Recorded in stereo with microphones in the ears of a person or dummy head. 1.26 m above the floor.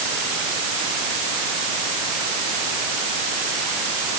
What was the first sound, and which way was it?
Only background noise.